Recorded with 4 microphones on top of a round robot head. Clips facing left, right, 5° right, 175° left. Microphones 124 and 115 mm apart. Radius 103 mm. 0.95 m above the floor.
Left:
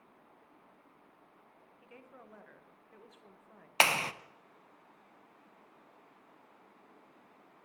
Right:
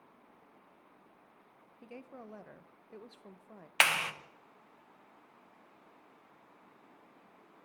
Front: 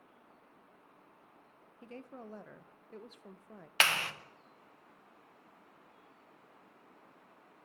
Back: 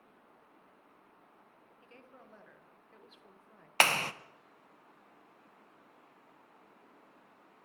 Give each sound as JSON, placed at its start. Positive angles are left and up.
{"t": 1.8, "sound": "a woman speaking", "azimuth_deg": -40, "distance_m": 0.6}
{"t": 3.8, "sound": "a clap", "azimuth_deg": 135, "distance_m": 0.5}